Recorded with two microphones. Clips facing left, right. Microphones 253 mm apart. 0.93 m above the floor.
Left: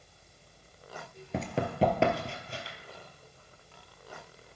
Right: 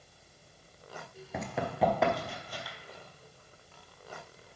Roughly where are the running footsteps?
Left.